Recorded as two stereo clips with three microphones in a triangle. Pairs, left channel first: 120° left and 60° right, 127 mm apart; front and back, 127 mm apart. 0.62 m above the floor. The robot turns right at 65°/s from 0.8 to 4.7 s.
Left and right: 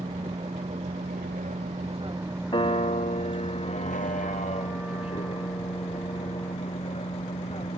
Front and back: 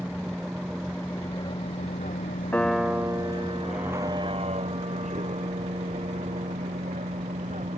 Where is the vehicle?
95° right; by 7.8 s 160° left.